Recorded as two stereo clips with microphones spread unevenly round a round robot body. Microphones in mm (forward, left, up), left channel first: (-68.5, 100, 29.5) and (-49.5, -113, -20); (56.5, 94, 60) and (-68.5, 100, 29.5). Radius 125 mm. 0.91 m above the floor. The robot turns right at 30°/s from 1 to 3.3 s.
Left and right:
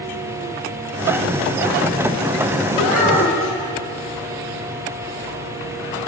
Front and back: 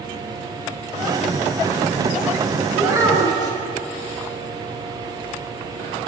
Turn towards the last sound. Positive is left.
turn(degrees=120)